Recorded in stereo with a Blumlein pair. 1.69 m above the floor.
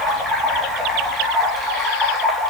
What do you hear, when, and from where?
0.0 s running water: 5° right, 2 m